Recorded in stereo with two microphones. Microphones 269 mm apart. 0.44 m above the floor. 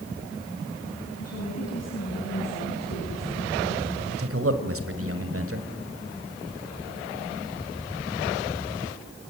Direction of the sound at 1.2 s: 65° left (ahead or behind).